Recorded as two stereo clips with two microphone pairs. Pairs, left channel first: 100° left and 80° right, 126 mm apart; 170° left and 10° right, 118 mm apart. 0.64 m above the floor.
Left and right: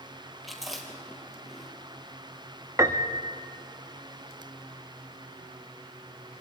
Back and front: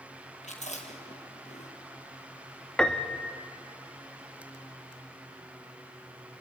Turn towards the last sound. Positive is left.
turn(degrees=-110)